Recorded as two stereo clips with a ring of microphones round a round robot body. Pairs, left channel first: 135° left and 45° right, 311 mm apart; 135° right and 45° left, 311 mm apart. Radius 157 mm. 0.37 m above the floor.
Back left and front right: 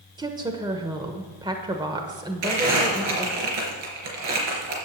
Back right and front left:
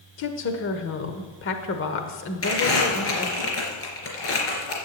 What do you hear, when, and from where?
0.2 s a woman speaking: 115° right, 1.0 m
2.4 s crumpling: 85° right, 3.5 m